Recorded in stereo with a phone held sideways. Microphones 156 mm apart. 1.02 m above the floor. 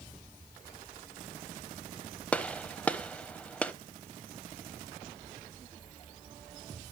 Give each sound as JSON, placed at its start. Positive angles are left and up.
{"t": 2.3, "sound": "a gunshot", "side_deg": 10, "distance_m": 0.9}